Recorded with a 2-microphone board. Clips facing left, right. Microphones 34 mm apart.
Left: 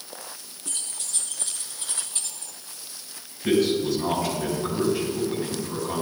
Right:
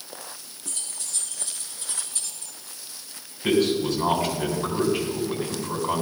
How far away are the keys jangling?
About 3.5 m.